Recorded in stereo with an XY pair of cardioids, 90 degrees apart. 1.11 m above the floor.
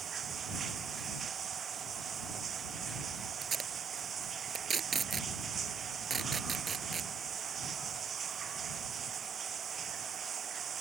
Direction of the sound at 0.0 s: 55° right.